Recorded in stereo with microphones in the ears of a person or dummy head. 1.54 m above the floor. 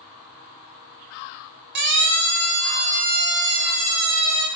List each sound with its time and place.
1.8 s a siren: 65° right (ahead or behind), 9.5 m; by 4.5 s 70° right (ahead or behind), 12 m